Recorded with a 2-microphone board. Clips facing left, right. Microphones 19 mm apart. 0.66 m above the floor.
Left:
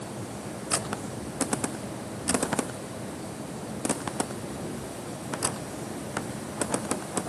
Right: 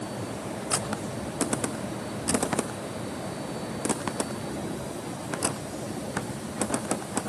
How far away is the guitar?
No guitar in this recording.